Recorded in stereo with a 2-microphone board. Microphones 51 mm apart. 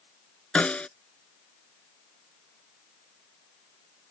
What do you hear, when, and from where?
0.6 s a snare drum: 25° left (ahead or behind)